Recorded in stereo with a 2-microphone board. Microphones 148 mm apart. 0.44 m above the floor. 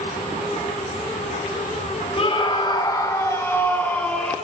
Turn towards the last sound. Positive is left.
turn(degrees=5)  # may be behind; listen again after turning